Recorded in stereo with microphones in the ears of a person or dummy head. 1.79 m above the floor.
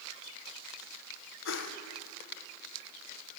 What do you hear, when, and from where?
1.4 s a whoosh: 75° left (ahead or behind), 1.5 m